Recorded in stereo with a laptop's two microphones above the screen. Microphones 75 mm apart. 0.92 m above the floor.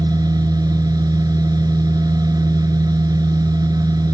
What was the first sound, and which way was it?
A machine running, 60° right (ahead or behind).